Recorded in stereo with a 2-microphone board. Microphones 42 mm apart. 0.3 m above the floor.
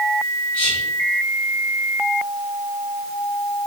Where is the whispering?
25° left (ahead or behind), 1.3 m.